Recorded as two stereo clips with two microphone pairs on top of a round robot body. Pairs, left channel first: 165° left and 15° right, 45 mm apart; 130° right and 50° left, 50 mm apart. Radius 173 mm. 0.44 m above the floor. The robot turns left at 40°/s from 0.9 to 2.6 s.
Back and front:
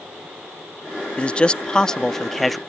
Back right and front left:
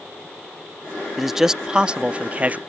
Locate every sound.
1.2 s a man speaking: 140° left; by 2.6 s 80° left